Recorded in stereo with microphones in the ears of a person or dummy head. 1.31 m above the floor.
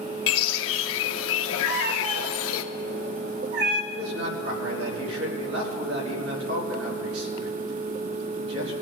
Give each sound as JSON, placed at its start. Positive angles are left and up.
{"t": 0.3, "sound": "a bird", "side_deg": 75, "distance_m": 0.9}
{"t": 1.6, "sound": "a cat meowing", "side_deg": -50, "distance_m": 1.1}
{"t": 3.9, "sound": "a man speaking", "side_deg": -75, "distance_m": 4.5}